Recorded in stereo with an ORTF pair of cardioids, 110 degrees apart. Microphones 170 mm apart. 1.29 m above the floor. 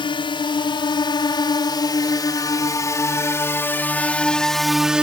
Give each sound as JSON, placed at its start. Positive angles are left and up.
{"t": 0.0, "sound": "a drone", "azimuth_deg": 30}